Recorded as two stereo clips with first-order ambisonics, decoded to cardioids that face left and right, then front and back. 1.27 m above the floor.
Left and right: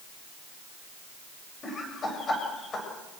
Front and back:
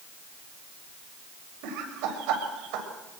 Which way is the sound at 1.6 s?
160° left.